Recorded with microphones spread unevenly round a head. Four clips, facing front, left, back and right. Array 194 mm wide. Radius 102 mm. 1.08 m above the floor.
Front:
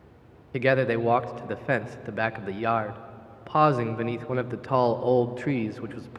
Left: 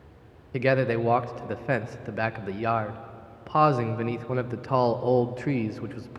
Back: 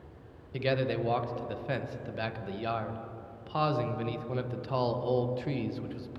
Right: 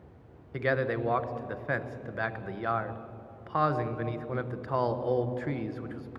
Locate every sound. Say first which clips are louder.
0.5 s a man speaking: left 5 dB, front 7 dB; 35° left, 0.9 m